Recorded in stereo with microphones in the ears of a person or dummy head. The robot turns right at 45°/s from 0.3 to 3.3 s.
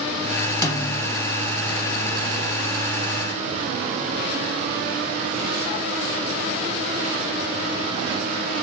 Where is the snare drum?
15° left (ahead or behind), 0.7 m; by 1.2 s 35° left (ahead or behind), 0.7 m.